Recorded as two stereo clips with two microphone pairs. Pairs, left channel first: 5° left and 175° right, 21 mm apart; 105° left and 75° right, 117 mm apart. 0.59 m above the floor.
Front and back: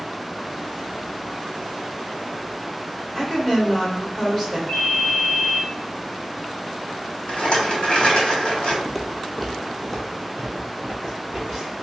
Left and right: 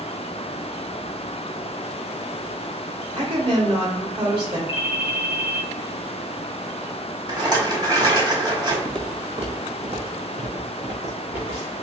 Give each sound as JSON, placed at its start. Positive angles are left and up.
{"t": 3.1, "sound": "a woman speaking", "azimuth_deg": -75, "distance_m": 2.0}
{"t": 4.7, "sound": "a ringtone", "azimuth_deg": 0, "distance_m": 0.8}
{"t": 7.3, "sound": "a rattle", "azimuth_deg": -25, "distance_m": 1.2}
{"t": 8.8, "sound": "footsteps", "azimuth_deg": -90, "distance_m": 0.7}